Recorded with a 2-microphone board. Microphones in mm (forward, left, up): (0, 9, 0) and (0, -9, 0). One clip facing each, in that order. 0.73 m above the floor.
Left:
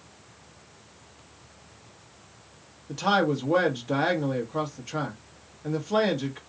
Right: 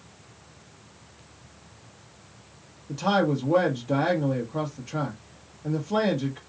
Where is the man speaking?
25° left (ahead or behind), 1.1 m.